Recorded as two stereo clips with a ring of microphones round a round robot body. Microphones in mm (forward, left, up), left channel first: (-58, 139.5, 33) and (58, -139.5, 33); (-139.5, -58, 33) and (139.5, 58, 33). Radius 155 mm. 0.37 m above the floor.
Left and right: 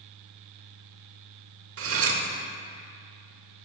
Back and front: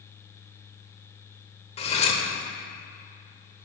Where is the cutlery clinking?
95° right, 0.9 m.